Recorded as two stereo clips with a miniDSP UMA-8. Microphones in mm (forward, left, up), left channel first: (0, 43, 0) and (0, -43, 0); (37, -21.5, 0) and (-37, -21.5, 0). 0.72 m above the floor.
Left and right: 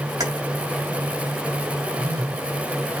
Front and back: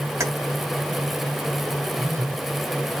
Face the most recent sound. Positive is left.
turn(degrees=-135)